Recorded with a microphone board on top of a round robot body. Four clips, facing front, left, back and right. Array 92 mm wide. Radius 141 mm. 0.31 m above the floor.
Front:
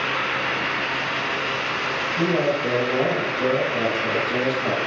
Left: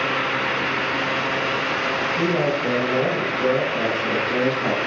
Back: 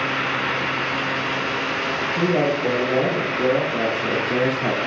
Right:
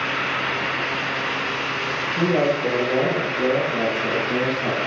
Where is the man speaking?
125° right, 2 m; by 4.8 s 160° left, 1.4 m.